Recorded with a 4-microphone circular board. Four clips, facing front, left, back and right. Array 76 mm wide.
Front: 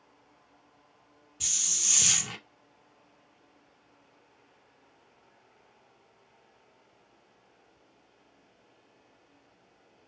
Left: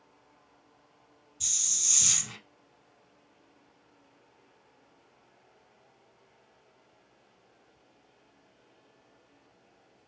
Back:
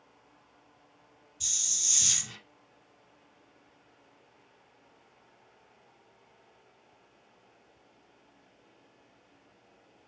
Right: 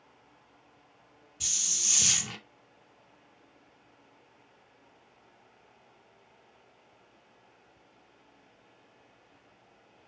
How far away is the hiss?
About 0.5 m.